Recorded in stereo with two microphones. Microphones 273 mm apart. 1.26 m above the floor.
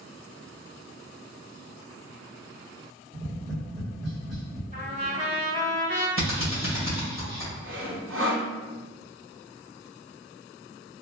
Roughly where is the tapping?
Centre.